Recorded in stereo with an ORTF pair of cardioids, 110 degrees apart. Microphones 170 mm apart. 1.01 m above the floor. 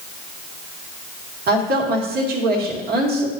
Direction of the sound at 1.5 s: 65° right.